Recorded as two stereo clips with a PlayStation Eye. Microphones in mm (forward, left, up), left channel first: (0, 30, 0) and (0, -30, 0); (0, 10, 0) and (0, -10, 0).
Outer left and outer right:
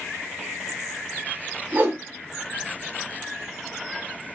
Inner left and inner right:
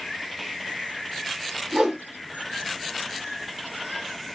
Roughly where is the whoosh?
Right.